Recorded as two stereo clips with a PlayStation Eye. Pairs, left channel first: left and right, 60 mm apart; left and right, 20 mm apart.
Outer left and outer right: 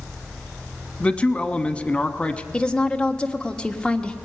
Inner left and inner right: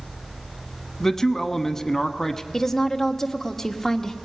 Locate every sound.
1.0 s a man speaking: 20° left (ahead or behind), 1.1 m
2.5 s a woman speaking: 15° left (ahead or behind), 1.4 m